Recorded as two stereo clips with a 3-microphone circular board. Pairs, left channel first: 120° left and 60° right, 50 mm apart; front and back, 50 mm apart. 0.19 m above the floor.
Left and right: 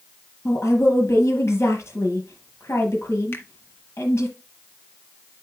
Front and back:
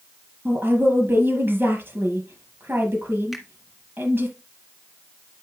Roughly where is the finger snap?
Left.